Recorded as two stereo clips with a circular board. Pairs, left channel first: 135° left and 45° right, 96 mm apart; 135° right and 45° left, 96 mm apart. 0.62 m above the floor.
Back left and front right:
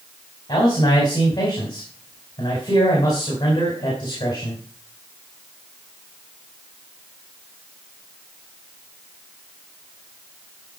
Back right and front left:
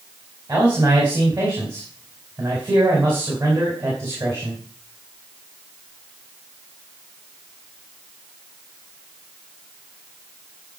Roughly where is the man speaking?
Left.